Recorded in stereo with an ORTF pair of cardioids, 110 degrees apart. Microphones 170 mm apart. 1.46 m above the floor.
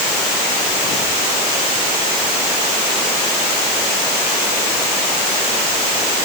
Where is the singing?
I don't hear singing.